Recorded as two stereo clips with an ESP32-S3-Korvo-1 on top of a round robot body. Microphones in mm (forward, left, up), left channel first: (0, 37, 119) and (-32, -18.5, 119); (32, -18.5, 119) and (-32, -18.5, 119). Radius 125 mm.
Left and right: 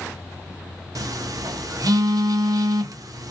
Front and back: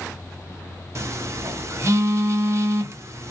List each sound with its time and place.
0.9 s a phone buzzing: 135° right, 0.6 m